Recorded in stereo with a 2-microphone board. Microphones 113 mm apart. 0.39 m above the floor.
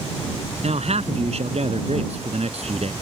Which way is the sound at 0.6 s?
70° right (ahead or behind).